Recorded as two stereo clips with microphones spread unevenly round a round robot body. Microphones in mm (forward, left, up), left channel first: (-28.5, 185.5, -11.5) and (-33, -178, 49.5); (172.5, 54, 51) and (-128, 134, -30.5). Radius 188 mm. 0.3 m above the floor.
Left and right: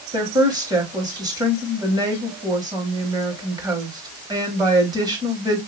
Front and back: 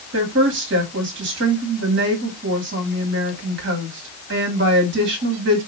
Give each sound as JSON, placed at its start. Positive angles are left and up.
{"t": 0.1, "sound": "a woman speaking", "azimuth_deg": -175, "distance_m": 1.8}